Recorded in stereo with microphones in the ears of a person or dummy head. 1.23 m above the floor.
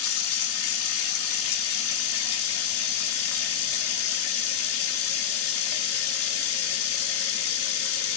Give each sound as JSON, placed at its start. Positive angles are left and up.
{"t": 0.0, "sound": "running water", "side_deg": 85, "distance_m": 1.9}